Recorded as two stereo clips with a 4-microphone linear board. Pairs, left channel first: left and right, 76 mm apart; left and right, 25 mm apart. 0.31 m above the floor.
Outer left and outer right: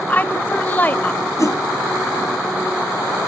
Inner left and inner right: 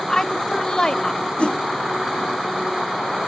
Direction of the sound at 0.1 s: 25° left (ahead or behind).